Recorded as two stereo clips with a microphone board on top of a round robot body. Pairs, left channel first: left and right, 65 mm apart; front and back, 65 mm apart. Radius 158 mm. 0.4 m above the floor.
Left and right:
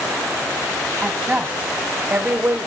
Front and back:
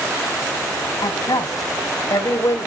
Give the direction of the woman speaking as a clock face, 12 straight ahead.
12 o'clock.